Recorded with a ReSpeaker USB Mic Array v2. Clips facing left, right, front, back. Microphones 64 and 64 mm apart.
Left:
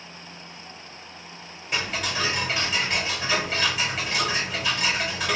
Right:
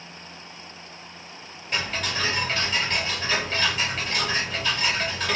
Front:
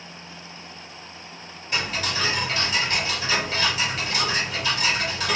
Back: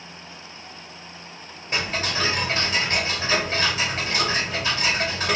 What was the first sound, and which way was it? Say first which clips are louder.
Ticking: even, back 1 dB; 170° left.